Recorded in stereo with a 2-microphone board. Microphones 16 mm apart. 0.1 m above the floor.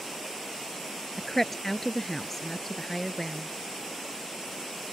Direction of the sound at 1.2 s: 15° left (ahead or behind).